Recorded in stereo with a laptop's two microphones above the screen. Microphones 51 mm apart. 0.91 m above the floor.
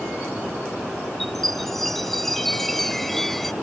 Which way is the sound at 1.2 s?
5° left (ahead or behind).